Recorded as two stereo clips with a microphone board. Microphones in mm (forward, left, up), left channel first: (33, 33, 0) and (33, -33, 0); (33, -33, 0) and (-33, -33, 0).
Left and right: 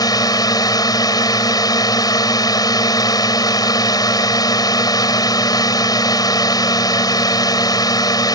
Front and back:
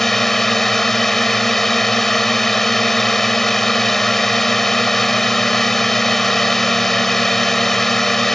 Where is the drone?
85° left.